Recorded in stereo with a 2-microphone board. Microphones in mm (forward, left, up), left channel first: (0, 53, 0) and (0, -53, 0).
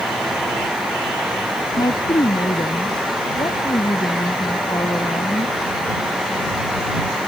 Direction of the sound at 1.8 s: 40° left (ahead or behind).